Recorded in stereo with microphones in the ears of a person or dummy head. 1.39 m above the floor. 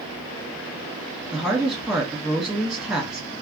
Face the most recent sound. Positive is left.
turn(degrees=-5)  # may be behind; listen again after turning